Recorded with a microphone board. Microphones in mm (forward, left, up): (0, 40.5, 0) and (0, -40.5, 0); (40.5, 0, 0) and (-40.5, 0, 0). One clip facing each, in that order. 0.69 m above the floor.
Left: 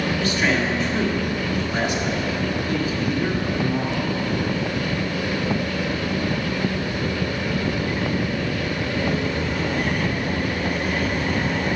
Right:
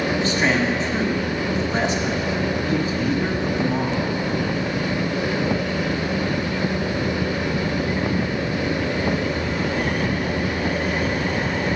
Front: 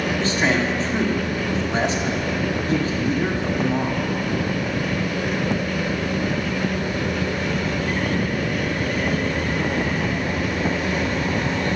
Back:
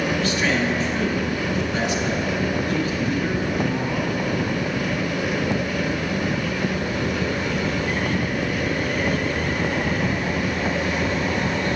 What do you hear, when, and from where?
0.2 s a man speaking: 40° right, 1.4 m